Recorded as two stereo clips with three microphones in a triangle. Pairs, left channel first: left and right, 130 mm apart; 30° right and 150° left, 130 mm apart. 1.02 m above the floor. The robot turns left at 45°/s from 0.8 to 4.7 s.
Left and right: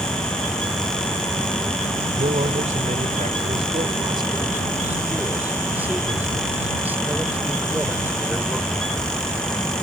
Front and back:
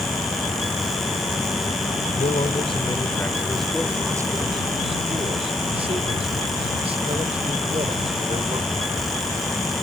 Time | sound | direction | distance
2.2 | a man speaking | 50° right | ?